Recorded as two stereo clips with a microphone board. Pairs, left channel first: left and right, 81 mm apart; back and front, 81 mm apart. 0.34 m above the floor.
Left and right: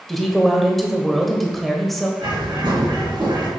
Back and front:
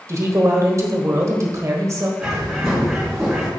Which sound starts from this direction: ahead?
A woman speaking, at 0.1 s.